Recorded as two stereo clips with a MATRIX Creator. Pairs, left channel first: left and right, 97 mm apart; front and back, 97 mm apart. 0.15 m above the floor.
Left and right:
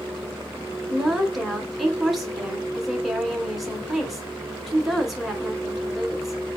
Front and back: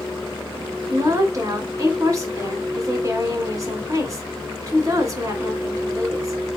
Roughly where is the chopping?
I don't hear chopping.